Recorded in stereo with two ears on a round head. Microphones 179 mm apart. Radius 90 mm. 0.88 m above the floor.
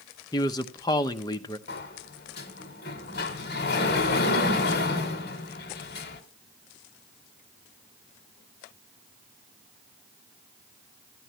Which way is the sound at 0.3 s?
20° left (ahead or behind).